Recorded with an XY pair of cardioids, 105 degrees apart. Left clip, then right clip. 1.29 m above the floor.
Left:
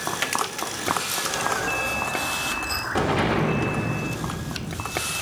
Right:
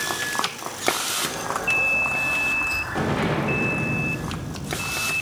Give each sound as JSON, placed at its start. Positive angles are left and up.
{"t": 1.2, "sound": "an explosion", "azimuth_deg": 35, "distance_m": 1.4}